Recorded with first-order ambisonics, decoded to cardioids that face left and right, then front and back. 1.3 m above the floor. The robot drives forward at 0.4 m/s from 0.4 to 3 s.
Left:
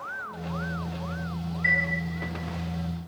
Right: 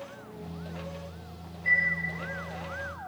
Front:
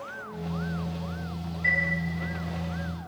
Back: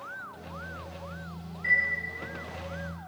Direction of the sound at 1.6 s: 75° left.